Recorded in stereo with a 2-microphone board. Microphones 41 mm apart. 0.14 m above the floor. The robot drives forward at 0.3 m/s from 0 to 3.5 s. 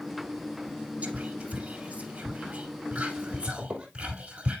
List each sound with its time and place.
1.0 s whispering: 30° right (ahead or behind), 1.3 m
3.6 s a squeak: 20° right (ahead or behind), 1.8 m